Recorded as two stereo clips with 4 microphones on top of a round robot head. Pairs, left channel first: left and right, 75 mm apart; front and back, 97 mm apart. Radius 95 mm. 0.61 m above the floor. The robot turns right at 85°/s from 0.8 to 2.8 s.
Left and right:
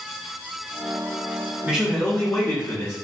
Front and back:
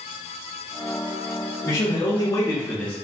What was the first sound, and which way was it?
A man speaking, 35° right.